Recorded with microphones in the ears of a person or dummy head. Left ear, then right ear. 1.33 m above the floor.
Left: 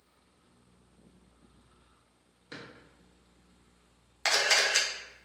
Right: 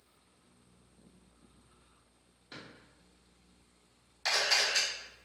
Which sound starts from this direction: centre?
A drawer, at 2.5 s.